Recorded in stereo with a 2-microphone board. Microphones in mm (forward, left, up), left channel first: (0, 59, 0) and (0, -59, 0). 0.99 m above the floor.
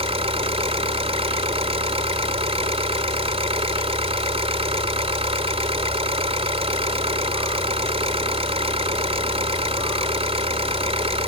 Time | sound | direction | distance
0.0 | an engine running | 60° right (ahead or behind) | ?